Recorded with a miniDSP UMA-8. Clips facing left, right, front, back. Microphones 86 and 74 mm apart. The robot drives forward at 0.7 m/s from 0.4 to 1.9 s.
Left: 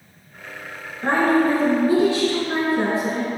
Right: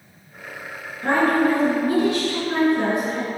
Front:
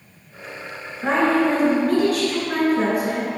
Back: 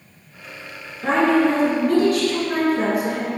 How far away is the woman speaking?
About 2.0 m.